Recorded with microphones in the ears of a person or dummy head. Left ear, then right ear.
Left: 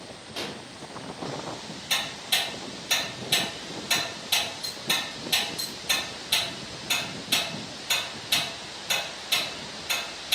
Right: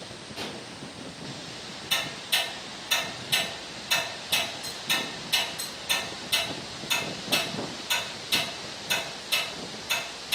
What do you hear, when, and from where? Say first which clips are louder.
0.4 s a pop: left 2 dB; 60° left (ahead or behind), 1.0 m
1.9 s ticking: left 1 dB; 35° left (ahead or behind), 1.7 m